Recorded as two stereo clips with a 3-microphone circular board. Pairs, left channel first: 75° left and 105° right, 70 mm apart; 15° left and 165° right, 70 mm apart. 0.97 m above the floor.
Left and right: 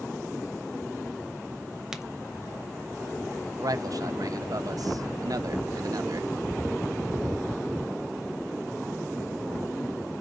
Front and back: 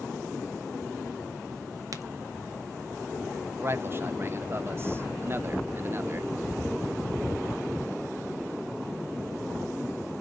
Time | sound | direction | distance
1.9 | a crack | 175° left | 1.1 m
3.6 | a man speaking | 115° right | 0.7 m